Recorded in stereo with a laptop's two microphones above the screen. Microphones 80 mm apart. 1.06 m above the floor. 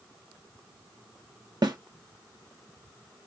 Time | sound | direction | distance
1.6 | a snare drum | 55° right (ahead or behind) | 0.9 m